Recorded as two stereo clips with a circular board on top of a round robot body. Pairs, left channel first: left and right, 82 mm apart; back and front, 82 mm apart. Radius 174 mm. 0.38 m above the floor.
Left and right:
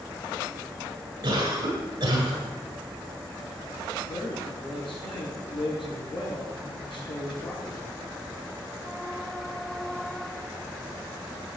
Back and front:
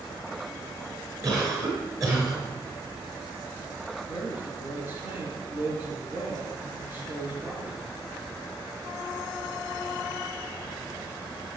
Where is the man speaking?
65° left, 7.5 m.